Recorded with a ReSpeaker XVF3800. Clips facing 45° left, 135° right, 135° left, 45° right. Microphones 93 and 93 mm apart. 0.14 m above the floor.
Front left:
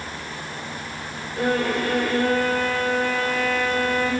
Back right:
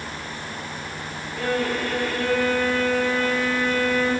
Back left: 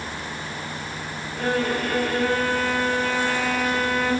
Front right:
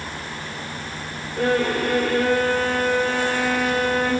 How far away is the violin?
About 9 m.